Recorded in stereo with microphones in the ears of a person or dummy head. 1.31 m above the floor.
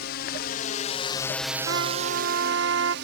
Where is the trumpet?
85° right.